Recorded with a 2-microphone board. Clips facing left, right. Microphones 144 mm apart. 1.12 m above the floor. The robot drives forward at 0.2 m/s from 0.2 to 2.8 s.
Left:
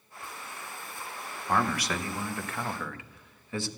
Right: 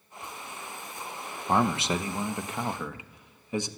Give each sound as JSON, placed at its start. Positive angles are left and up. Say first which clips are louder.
{"t": 1.5, "sound": "a man speaking", "louder": "right 3 dB", "side_deg": -25, "distance_m": 0.7}